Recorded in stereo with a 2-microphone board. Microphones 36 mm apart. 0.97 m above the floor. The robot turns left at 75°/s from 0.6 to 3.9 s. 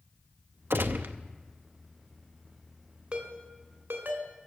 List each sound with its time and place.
0.7 s a gunshot: 85° right, 0.7 m; by 1.1 s 120° right, 0.7 m
3.1 s a ringtone: 35° right (ahead or behind), 2.5 m; by 4.3 s 85° right, 2.5 m